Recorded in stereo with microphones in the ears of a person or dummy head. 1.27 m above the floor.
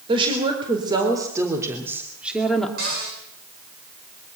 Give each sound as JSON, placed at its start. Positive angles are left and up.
{"t": 0.1, "sound": "a woman speaking", "side_deg": -30, "distance_m": 5.0}
{"t": 2.8, "sound": "a cupboard door", "side_deg": -50, "distance_m": 7.5}